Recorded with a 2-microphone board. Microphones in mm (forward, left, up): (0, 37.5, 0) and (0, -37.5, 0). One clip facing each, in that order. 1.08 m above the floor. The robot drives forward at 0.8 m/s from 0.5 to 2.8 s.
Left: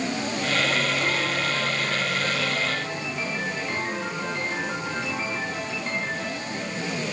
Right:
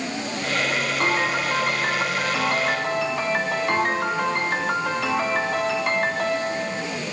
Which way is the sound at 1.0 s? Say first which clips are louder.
Right 3 dB; 60° right (ahead or behind).